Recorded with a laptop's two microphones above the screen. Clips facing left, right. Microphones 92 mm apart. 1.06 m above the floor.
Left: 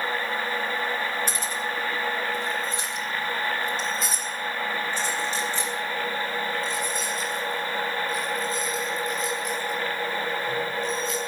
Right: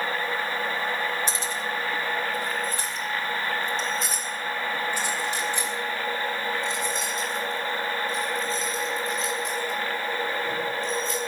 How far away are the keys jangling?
About 2.5 m.